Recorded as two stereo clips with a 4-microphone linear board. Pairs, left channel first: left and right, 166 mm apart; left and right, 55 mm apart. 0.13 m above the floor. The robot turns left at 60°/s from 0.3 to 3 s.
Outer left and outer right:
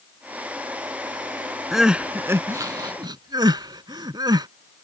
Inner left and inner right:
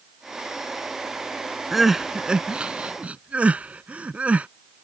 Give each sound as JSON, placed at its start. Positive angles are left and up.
{"t": 1.7, "sound": "crying", "side_deg": 0}